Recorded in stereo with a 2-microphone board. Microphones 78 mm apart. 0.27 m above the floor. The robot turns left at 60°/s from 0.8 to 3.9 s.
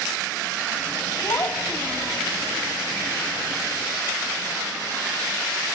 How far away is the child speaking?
About 1.3 m.